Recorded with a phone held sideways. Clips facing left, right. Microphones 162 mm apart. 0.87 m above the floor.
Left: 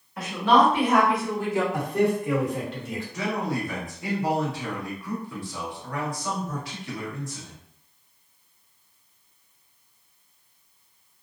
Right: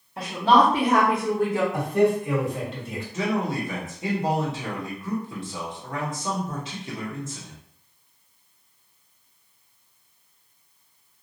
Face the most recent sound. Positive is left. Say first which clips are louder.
# right 3 dB
turn(degrees=-20)  # may be behind; listen again after turning